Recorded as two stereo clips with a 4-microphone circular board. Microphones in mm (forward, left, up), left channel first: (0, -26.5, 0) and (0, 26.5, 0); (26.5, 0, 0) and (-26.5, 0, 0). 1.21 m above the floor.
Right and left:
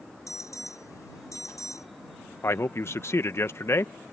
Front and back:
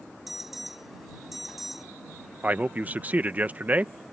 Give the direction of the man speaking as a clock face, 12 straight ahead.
4 o'clock.